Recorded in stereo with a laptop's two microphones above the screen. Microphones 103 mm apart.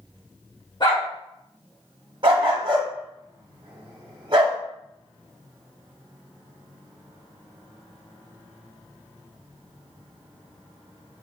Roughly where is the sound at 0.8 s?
Left.